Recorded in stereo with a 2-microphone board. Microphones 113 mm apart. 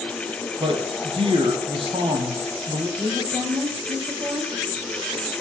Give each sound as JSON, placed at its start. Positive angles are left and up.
{"t": 0.6, "sound": "a man speaking", "side_deg": -50, "distance_m": 3.5}
{"t": 3.0, "sound": "a woman speaking", "side_deg": -30, "distance_m": 3.5}